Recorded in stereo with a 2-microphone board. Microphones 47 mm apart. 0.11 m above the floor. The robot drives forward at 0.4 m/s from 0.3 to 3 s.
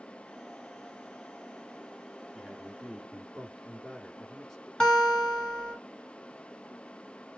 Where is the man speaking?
Centre (ahead or behind), 1.2 m.